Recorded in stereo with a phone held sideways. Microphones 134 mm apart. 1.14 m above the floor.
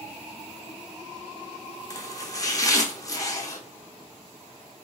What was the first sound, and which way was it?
Chopping, 25° left (ahead or behind).